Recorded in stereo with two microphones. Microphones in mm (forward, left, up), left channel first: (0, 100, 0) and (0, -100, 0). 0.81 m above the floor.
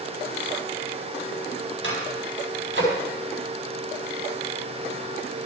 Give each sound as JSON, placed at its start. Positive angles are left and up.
{"t": 1.8, "sound": "a microwave", "side_deg": -80, "distance_m": 4.0}